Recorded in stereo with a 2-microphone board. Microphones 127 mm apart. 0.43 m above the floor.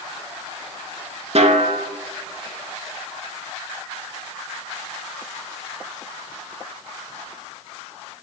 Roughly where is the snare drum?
Right.